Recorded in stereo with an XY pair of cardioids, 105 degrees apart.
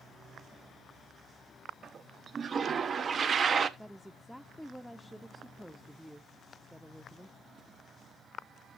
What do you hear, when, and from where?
1.8 s a toilet flushing: 45° right, 1.0 m
3.8 s a woman speaking: straight ahead, 0.7 m